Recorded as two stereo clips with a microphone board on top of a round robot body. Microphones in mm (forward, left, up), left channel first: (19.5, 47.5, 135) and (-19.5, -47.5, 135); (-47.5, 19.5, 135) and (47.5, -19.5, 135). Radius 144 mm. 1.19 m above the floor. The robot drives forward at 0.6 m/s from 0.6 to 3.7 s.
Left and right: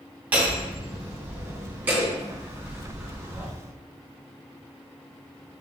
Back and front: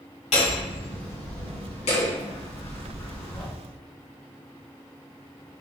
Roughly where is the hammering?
Behind.